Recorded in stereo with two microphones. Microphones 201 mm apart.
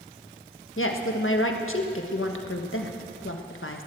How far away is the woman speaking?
About 1.3 m.